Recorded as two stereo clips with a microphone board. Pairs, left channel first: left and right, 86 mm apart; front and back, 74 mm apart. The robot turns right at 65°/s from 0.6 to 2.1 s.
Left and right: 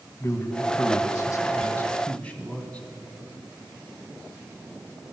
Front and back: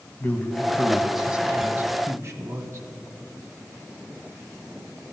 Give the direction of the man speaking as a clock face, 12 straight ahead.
10 o'clock.